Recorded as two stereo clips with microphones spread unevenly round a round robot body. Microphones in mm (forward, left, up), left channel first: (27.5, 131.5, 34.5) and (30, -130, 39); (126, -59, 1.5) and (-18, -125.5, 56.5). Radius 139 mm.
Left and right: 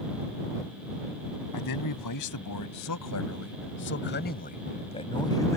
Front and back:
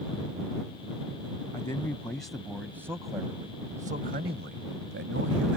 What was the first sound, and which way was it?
A man speaking, 100° left.